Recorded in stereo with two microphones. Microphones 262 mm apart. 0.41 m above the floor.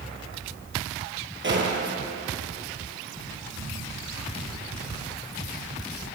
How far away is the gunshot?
About 2.5 m.